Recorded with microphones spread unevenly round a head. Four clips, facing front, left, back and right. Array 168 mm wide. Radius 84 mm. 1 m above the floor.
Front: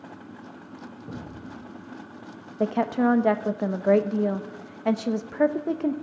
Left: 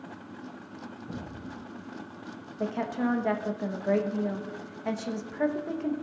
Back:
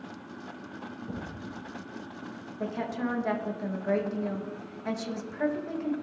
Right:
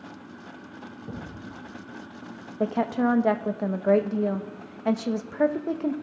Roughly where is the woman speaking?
Ahead right.